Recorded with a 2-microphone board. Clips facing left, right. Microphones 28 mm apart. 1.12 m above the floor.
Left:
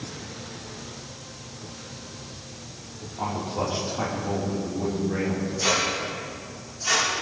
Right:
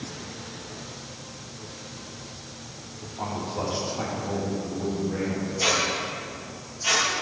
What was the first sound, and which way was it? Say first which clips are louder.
A man speaking: left 2 dB; 5° left (ahead or behind).